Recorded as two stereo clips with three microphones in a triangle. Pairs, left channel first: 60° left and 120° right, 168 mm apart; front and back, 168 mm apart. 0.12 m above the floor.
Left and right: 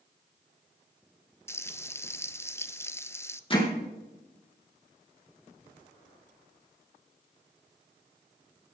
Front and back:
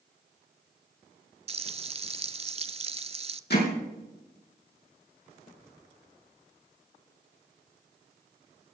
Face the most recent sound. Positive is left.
turn(degrees=5)